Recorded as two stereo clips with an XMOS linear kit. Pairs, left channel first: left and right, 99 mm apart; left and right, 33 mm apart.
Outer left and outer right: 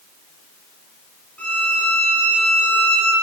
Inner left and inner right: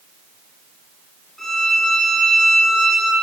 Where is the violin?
15° left (ahead or behind), 2 m.